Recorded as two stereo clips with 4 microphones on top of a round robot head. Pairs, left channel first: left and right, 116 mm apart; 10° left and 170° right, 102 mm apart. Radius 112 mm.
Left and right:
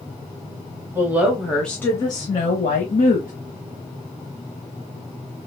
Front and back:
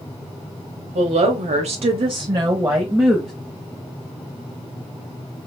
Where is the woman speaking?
165° right, 1.0 m; by 3.3 s 110° left, 1.0 m.